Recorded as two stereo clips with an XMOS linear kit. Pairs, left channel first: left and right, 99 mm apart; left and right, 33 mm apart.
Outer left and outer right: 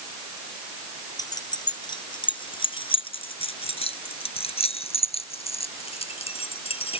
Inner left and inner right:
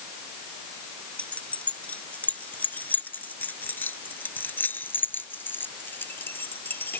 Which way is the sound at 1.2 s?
40° left (ahead or behind).